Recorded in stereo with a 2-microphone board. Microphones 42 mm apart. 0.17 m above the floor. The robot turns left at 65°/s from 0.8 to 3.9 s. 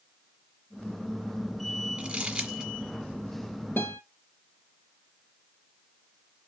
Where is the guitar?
65° left (ahead or behind), 0.9 m; by 4.0 s 70° left (ahead or behind), 0.9 m.